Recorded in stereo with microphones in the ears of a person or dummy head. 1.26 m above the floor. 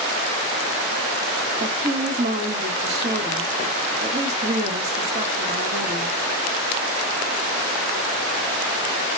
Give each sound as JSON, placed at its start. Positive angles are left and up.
{"t": 1.6, "sound": "a woman speaking", "side_deg": -40, "distance_m": 1.8}